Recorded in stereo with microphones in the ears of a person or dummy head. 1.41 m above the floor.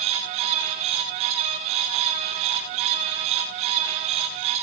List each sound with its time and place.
Only background noise.